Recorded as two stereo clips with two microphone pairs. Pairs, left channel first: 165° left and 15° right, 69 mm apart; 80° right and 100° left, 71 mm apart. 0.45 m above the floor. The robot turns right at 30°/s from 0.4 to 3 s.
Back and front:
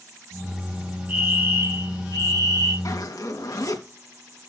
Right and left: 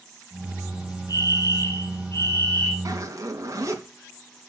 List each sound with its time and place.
1.1 s a fire alarm: 70° right, 4.5 m; by 2.8 s 20° right, 4.5 m
2.9 s a zipper: 135° left, 3 m; by 3.8 s 140° left, 3 m